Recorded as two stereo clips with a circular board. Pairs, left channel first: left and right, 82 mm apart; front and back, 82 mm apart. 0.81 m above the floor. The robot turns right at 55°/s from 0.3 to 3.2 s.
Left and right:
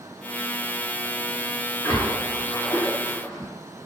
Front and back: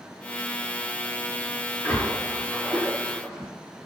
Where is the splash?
50° left, 0.9 m; by 3.5 s 125° left, 0.9 m.